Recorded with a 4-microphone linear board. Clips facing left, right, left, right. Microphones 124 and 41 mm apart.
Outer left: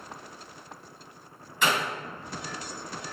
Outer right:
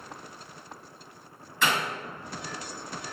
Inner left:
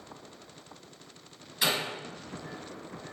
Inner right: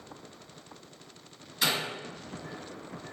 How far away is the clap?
About 1.4 m.